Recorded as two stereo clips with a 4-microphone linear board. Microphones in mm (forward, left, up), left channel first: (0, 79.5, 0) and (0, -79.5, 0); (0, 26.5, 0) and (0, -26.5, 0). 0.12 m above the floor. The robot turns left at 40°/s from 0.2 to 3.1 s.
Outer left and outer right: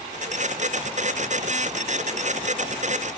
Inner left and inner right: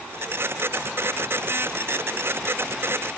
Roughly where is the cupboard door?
No cupboard door in this recording.